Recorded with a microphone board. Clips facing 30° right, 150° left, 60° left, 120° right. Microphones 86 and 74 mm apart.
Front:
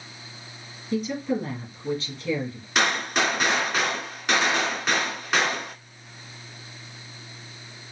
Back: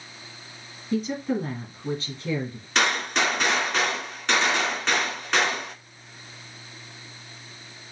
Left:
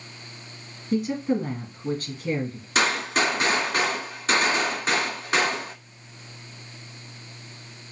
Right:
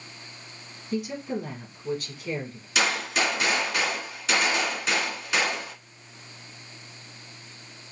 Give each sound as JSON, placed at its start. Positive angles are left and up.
{"t": 0.9, "sound": "a woman speaking", "azimuth_deg": 90, "distance_m": 3.0}
{"t": 2.8, "sound": "a gunshot", "azimuth_deg": 50, "distance_m": 2.0}